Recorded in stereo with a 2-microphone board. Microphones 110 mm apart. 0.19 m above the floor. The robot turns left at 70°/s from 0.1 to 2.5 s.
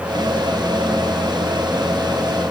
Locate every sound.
Only background noise.